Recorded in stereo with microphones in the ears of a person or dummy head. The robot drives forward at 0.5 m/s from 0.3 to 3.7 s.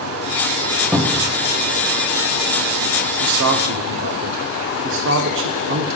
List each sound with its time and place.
0.9 s a cupboard door: centre (ahead or behind), 0.7 m; by 1.4 s 5° right (ahead or behind), 0.5 m
3.2 s a man speaking: 65° right (ahead or behind), 0.5 m